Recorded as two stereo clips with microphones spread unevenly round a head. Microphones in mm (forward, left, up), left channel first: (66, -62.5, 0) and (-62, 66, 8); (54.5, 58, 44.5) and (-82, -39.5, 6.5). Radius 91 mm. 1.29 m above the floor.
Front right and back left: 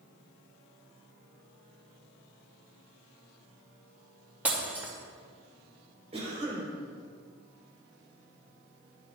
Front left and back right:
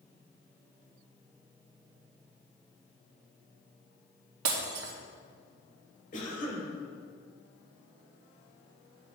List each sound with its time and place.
4.5 s breaking glass: 145° right, 2 m
6.1 s a cough: 75° left, 4.5 m